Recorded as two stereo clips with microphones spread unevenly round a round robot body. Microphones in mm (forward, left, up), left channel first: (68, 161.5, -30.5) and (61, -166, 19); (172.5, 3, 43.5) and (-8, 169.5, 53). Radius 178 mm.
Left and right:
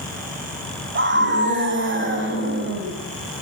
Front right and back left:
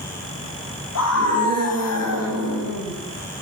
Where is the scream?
35° right, 6.5 m.